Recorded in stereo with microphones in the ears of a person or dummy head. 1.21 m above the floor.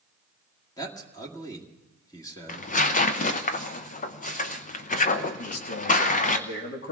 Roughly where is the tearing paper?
Left.